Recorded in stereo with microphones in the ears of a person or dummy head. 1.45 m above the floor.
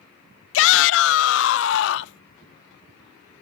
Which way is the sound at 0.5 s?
80° left.